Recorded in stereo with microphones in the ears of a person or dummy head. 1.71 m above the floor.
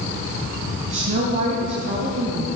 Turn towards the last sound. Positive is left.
turn(degrees=-35)  # may be behind; listen again after turning